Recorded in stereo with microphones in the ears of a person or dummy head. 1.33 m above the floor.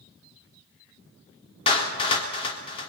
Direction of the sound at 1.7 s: 35° left (ahead or behind).